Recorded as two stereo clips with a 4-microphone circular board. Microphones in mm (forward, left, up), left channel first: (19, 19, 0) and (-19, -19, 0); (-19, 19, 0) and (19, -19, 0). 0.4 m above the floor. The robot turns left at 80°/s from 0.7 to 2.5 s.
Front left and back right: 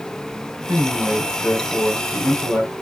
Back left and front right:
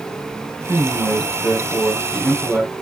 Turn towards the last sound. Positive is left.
turn(degrees=45)